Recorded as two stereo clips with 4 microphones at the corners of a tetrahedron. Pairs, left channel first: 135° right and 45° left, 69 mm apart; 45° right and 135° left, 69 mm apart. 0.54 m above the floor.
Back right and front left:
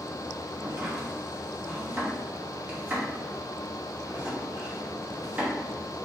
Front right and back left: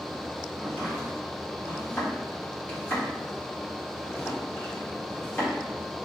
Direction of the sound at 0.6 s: 5° right.